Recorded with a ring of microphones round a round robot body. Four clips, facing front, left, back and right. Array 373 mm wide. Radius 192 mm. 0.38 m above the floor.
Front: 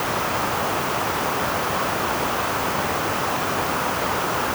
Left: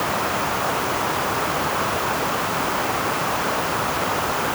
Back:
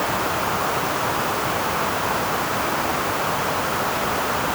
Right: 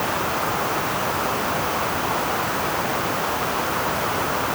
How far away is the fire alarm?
No fire alarm in this recording.